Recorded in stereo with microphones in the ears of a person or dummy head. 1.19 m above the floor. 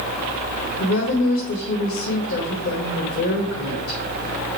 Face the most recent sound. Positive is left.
turn(degrees=65)  # may be behind; listen again after turning